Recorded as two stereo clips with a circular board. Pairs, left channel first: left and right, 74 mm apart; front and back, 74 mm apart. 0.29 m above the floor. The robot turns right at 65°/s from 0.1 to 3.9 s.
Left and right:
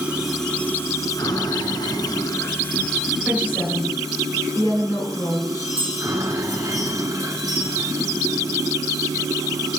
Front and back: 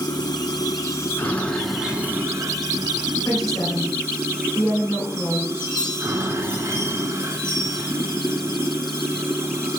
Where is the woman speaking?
10° left, 4 m; by 5.7 s 55° left, 4 m.